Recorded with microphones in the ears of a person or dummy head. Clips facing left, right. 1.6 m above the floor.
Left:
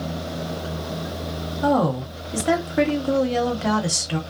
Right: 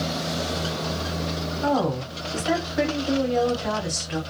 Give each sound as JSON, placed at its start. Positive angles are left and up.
{"t": 1.6, "sound": "a woman speaking", "side_deg": 45, "distance_m": 1.1}